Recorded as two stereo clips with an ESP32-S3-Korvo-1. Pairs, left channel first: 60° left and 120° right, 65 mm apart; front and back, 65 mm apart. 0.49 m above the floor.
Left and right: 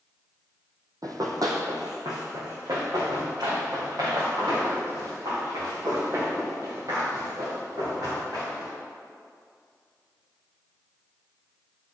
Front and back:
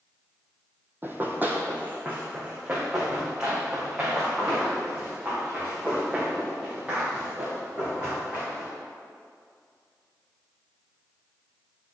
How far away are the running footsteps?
About 1.1 m.